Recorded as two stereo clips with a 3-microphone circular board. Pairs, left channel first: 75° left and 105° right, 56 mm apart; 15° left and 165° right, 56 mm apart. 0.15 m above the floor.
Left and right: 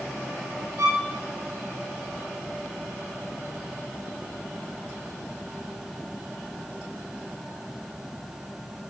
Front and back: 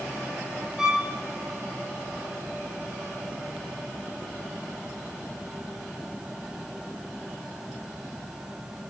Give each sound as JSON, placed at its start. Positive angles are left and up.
{"t": 0.8, "sound": "a violin", "azimuth_deg": -90, "distance_m": 7.5}